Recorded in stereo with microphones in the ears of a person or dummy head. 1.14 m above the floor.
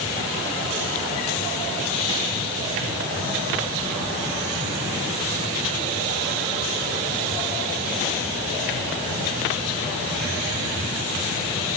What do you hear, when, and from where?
Only background noise.